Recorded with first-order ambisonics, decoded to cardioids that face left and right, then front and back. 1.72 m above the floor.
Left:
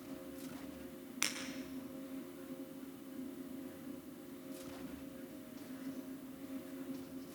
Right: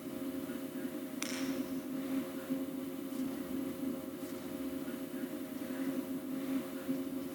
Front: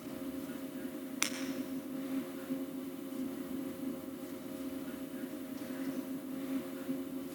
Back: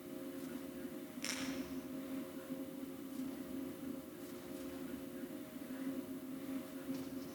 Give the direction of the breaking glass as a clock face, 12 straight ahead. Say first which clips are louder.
Left 4 dB, front 8 dB; 12 o'clock.